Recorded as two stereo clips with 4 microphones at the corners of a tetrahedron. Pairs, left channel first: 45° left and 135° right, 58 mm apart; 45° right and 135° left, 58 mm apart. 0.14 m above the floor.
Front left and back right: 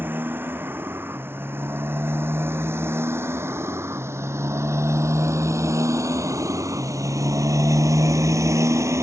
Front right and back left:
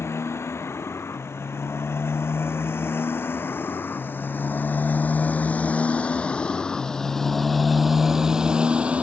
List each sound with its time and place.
0.0 s a motorcycle: 80° right; by 9.0 s 160° right